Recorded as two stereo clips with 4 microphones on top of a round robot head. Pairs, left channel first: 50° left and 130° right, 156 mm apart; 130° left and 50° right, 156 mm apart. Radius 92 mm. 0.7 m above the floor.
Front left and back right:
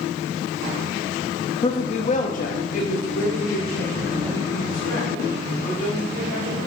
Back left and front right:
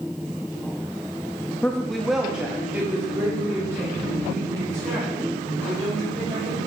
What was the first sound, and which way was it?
A woman speaking, 55° left.